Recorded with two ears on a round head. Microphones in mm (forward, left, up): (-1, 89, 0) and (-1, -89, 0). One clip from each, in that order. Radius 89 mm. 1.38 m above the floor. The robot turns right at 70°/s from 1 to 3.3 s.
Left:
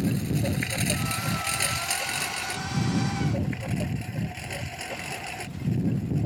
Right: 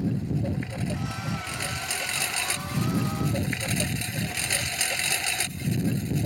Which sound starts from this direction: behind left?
A lawn mower, at 0.0 s.